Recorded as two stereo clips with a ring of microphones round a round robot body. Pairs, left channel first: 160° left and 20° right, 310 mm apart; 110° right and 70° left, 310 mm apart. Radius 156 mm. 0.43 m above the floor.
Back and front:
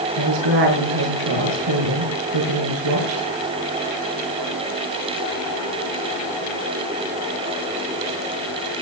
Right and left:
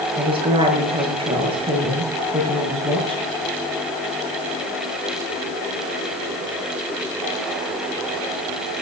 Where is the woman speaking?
5° right, 7 m.